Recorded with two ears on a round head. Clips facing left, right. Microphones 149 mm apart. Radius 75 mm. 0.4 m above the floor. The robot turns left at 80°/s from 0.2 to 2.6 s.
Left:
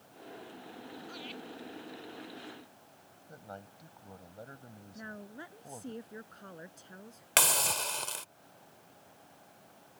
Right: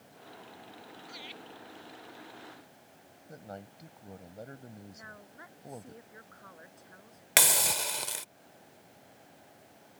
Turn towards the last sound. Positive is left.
turn(degrees=-10)  # may be behind; listen again after turning